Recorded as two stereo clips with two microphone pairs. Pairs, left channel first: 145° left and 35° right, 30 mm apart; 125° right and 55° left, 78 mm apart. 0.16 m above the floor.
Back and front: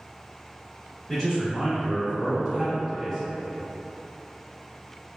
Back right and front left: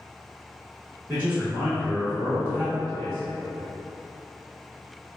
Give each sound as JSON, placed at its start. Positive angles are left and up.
{"t": 1.1, "sound": "a man speaking", "azimuth_deg": 85, "distance_m": 1.4}